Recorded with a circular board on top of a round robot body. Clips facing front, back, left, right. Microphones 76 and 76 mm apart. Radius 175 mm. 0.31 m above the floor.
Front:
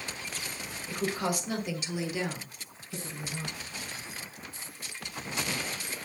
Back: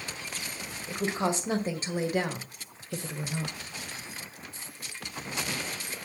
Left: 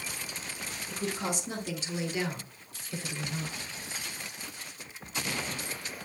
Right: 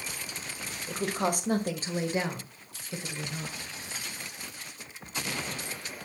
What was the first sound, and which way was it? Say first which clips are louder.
A woman speaking: back 2 dB, right 5 dB; 110° right.